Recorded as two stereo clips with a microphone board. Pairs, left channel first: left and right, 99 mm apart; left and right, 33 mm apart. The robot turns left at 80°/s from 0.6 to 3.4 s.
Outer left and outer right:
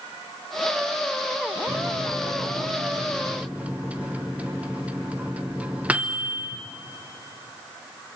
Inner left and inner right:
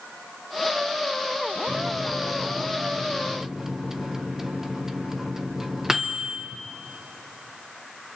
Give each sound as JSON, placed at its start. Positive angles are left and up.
{"t": 1.7, "sound": "a microwave", "side_deg": -25, "distance_m": 0.9}